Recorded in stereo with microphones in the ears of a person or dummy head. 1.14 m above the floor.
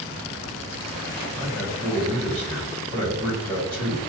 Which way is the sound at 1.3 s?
Centre (ahead or behind).